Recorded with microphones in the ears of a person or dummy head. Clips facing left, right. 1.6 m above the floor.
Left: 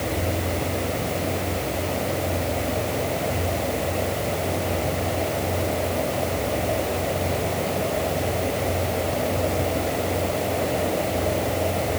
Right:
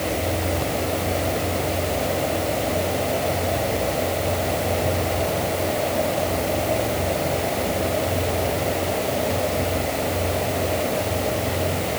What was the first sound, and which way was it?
Only background noise.